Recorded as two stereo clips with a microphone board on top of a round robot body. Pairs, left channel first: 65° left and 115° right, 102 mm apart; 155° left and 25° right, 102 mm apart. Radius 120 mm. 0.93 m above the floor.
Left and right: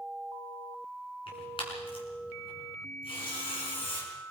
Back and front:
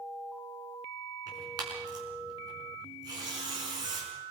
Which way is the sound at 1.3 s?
30° left.